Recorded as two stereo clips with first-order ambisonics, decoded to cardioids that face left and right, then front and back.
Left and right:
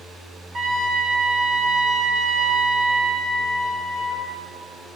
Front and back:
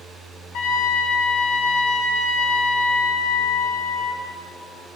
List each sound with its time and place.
0.5 s a trumpet: 30° right, 2.5 m